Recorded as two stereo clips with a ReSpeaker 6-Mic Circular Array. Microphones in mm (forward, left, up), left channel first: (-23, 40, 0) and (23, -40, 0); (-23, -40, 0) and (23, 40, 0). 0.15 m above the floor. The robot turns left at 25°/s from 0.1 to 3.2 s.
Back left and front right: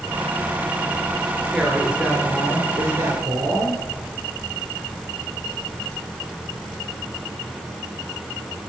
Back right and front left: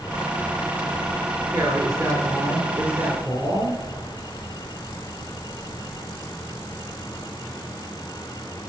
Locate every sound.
1.5 s a woman speaking: 25° left, 2 m; by 3.8 s 15° right, 2 m